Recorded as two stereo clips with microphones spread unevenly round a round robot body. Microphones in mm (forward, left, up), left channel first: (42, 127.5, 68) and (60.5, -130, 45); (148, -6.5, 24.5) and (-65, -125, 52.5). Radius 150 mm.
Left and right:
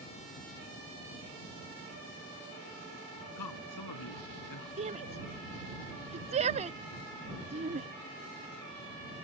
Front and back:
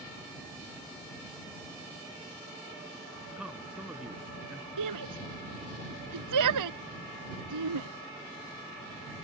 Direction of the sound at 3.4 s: 120° left.